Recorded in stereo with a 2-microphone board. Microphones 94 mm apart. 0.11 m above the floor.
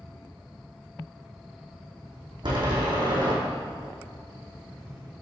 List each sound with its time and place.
2.4 s a door slam: 55° right (ahead or behind), 3.5 m